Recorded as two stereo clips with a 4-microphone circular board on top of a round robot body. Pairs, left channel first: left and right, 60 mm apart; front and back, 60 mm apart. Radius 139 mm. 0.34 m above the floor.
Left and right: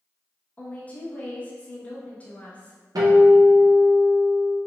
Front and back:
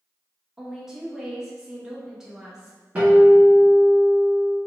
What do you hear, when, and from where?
0.6 s a woman speaking: 110° left, 0.9 m
3.0 s a guitar: 110° right, 1.2 m